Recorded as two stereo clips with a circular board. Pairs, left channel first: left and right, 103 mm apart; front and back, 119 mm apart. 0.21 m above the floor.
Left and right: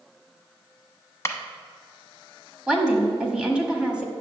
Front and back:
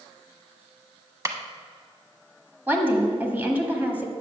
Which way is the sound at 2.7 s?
150° right.